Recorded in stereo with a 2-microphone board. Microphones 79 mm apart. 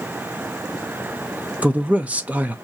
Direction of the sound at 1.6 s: 20° right (ahead or behind).